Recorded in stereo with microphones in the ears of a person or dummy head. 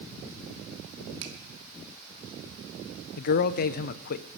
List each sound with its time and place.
1.2 s a finger snap: 70° right (ahead or behind), 2.5 m
3.2 s a man speaking: 50° left (ahead or behind), 0.7 m